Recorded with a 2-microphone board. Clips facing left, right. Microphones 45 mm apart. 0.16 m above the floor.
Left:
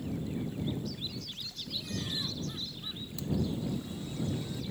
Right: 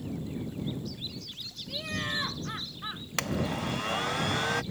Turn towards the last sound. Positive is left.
turn(degrees=-75)  # may be behind; listen again after turning